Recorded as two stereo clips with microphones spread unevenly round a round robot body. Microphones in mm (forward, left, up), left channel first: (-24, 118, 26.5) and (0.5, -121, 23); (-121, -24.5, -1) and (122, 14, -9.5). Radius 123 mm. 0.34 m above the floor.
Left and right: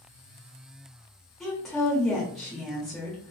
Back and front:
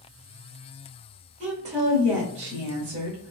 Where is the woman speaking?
5° left, 1.0 m.